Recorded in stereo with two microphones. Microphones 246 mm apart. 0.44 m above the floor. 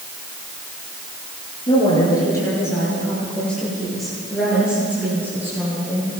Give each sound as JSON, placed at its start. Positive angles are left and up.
{"t": 1.7, "sound": "a woman speaking", "side_deg": 20, "distance_m": 9.0}